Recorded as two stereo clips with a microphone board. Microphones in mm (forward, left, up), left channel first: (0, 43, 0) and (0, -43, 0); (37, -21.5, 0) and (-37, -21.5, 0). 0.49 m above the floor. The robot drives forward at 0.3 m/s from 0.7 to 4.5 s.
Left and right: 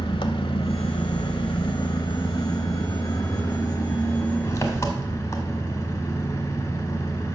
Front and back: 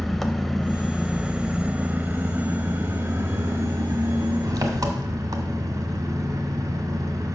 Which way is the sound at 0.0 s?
90° left.